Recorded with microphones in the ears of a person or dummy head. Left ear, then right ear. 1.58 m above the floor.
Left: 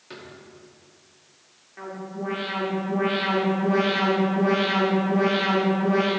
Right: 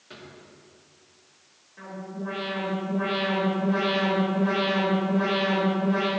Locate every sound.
0.1 s a drawer: 10° left (ahead or behind), 1.9 m
1.8 s an alarm: 35° left (ahead or behind), 2.5 m